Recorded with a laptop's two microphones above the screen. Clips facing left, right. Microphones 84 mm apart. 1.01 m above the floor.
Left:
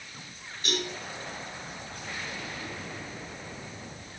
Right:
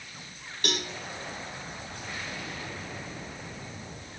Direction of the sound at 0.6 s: 85° right.